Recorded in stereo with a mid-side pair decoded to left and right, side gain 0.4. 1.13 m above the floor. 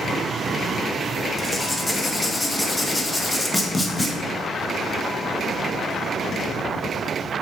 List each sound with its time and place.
1.4 s writing: 15° left, 0.7 m